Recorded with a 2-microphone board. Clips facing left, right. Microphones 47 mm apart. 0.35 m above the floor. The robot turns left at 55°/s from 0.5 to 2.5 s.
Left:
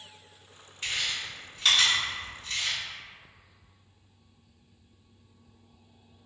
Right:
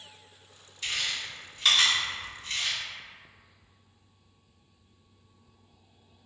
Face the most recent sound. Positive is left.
turn(degrees=-40)  # may be behind; listen again after turning